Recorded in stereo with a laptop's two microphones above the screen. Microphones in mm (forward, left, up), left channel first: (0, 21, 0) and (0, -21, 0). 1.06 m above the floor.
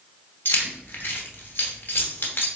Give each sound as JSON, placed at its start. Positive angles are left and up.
{"t": 0.5, "sound": "keys jangling", "side_deg": 55, "distance_m": 0.9}